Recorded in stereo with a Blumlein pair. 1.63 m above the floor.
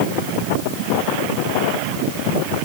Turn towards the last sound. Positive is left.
No sound to turn to.